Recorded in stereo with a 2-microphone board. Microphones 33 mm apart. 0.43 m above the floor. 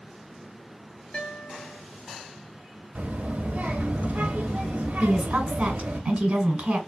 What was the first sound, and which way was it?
A guitar, 35° left (ahead or behind).